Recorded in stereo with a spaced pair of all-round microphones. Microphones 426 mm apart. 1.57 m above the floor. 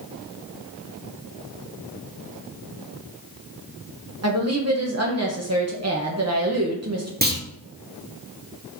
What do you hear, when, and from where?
4.2 s a woman speaking: 35° right (ahead or behind), 1.1 m
7.2 s a clunk: 20° right (ahead or behind), 1.2 m